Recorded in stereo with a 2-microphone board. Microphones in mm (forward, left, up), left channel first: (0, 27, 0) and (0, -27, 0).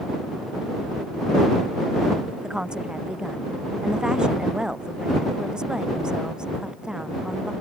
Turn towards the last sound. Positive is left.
turn(degrees=-15)  # may be behind; listen again after turning